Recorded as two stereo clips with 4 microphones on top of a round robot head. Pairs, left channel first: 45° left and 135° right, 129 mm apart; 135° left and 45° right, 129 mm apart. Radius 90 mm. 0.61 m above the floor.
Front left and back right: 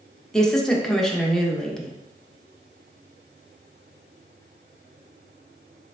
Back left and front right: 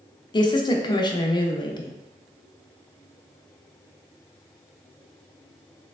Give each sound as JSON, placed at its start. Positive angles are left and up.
{"t": 0.3, "sound": "a woman speaking", "azimuth_deg": 130, "distance_m": 0.7}